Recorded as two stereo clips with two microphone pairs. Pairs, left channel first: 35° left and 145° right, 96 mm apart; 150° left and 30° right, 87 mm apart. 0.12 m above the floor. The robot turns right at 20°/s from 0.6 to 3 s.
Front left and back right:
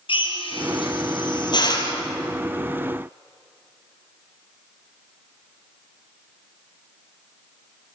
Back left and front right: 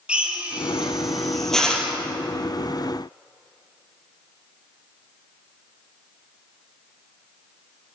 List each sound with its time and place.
0.1 s a drill: 45° left, 3.5 m; by 1.9 s 75° left, 3.5 m